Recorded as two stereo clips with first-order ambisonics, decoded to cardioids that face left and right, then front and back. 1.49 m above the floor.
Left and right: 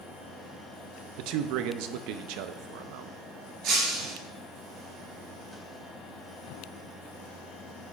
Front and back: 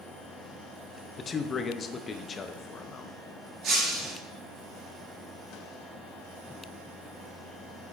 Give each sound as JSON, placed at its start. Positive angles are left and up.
{"t": 1.2, "sound": "a man speaking", "azimuth_deg": -70, "distance_m": 0.6}
{"t": 3.6, "sound": "breaking glass", "azimuth_deg": -120, "distance_m": 3.5}